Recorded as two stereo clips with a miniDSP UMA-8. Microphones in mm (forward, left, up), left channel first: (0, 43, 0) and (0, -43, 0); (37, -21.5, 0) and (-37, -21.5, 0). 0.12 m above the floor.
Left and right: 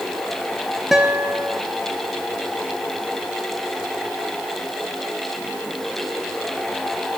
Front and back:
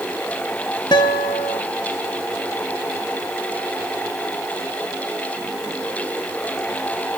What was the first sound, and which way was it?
A guitar, 5° right.